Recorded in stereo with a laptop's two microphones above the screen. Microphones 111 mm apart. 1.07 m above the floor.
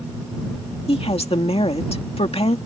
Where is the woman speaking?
60° left (ahead or behind).